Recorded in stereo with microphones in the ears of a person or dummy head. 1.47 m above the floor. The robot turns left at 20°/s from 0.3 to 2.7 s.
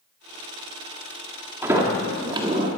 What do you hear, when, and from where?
1.6 s a sliding door: 15° right (ahead or behind), 1.4 m; by 2.7 s 35° right (ahead or behind), 1.4 m